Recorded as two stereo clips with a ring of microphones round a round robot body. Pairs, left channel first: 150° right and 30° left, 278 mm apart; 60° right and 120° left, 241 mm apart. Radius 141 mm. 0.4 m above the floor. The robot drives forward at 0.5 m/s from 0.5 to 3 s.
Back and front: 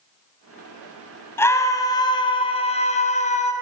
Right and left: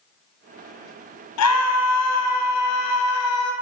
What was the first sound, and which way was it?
A scream, 70° right.